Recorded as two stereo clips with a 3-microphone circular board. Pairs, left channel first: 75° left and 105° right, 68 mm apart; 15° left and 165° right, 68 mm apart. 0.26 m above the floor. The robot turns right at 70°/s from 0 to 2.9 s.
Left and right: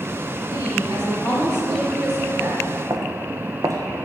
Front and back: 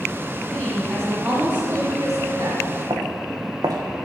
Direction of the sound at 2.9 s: 145° right.